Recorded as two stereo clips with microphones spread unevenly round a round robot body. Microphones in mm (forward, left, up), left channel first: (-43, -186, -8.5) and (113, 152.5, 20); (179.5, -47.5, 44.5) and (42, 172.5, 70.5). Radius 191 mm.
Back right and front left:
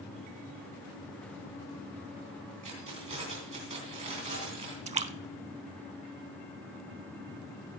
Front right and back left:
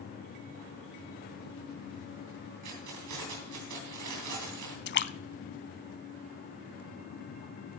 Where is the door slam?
No door slam in this recording.